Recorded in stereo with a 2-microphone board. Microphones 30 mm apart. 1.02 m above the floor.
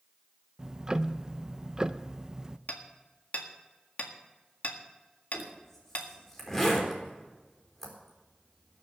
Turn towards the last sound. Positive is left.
turn(degrees=5)  # may be behind; listen again after turning